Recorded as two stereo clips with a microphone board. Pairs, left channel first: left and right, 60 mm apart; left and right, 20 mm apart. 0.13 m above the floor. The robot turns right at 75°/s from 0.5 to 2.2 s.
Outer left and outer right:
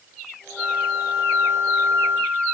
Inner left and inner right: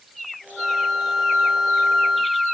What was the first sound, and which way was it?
A flute, 170° right.